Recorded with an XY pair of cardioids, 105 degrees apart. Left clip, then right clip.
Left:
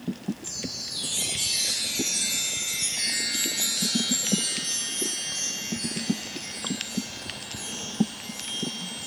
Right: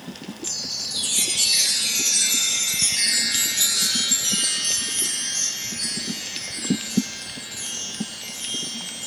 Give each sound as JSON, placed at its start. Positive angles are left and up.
{"t": 0.4, "sound": "a chime", "azimuth_deg": -50, "distance_m": 2.0}